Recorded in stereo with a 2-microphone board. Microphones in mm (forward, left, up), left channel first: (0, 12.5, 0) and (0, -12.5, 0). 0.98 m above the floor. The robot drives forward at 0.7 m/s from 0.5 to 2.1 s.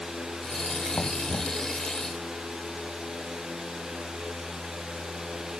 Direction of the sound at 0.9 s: 85° left.